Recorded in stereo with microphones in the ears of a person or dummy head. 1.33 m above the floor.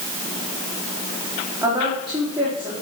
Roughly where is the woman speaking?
Centre.